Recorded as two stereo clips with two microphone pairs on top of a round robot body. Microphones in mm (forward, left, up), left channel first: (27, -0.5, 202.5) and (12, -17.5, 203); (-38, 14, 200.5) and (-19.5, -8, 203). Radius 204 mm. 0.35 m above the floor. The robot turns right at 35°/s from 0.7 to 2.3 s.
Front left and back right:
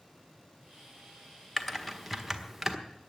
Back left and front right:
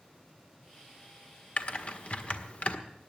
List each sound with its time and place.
1.6 s typing on a keyboard: 120° left, 1.8 m; by 2.8 s 145° left, 1.8 m